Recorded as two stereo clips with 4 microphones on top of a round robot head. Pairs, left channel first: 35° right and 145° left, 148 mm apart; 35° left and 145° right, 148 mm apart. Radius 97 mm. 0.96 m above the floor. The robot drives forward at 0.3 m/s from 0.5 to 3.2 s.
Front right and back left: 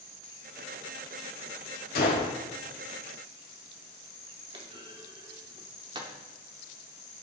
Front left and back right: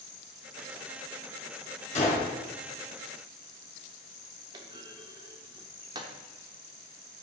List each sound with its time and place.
1.9 s a gunshot: 10° right, 2.5 m
4.5 s a clunk: straight behind, 0.6 m